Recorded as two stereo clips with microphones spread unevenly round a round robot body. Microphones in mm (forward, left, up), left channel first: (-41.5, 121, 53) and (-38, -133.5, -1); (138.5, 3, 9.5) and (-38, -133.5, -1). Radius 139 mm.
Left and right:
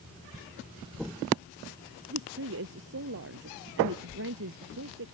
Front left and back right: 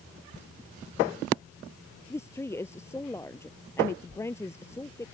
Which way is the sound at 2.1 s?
40° right.